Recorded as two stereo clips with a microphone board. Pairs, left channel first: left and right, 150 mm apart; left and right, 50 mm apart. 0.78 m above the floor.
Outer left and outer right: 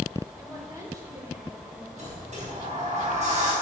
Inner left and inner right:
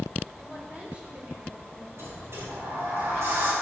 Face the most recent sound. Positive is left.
turn(degrees=-55)  # may be behind; listen again after turning